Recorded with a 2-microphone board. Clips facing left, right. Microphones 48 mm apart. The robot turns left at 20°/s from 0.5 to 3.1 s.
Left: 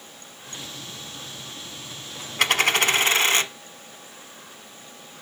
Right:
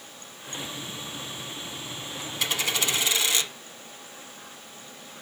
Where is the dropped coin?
55° left (ahead or behind), 0.9 m; by 3.5 s 45° left (ahead or behind), 0.9 m.